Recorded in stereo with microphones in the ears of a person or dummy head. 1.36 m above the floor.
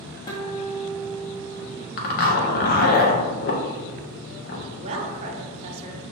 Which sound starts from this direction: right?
A woman speaking, at 4.8 s.